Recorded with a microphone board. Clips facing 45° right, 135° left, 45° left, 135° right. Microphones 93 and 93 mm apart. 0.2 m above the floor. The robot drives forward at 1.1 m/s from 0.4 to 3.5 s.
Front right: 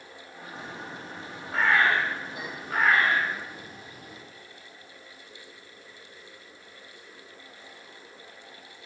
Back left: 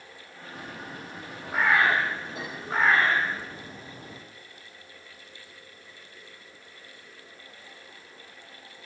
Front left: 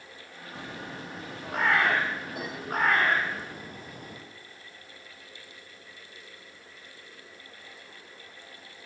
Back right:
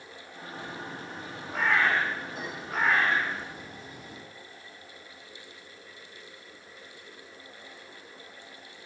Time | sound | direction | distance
0.6 | a bird | 55° left | 7.5 m